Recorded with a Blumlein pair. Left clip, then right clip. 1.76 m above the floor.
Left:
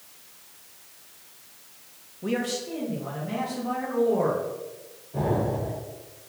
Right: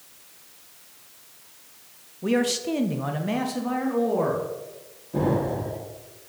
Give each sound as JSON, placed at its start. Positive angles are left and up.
{"t": 2.2, "sound": "a man speaking", "azimuth_deg": -10, "distance_m": 0.7}
{"t": 5.1, "sound": "an explosion", "azimuth_deg": -60, "distance_m": 2.5}